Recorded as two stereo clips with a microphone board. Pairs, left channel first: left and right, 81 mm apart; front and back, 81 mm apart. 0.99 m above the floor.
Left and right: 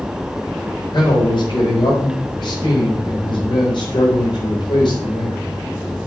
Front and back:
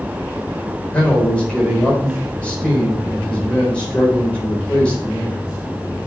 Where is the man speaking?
75° left, 4 m.